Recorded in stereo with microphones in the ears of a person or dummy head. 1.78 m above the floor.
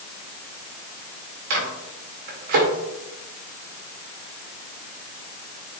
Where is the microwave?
55° right (ahead or behind), 2 m.